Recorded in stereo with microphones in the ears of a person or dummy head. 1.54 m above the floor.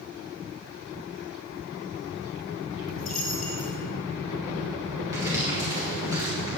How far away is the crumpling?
About 4 m.